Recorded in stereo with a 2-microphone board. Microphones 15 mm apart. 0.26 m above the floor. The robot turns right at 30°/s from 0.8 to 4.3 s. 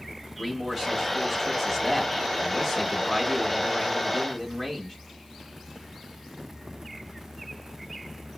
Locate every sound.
0.4 s a man speaking: 15° right (ahead or behind), 1.2 m; by 5.0 s 20° left (ahead or behind), 1.2 m